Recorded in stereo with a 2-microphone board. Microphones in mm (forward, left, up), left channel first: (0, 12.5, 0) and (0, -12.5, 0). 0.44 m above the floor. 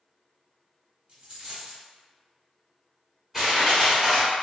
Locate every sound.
1.1 s a dropped coin: 45° right (ahead or behind), 1.1 m
3.3 s crushing: 10° right (ahead or behind), 1.4 m